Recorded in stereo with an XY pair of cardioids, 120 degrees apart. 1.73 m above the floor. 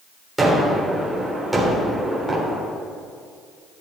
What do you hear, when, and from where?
0.4 s a gunshot: 15° right, 3.5 m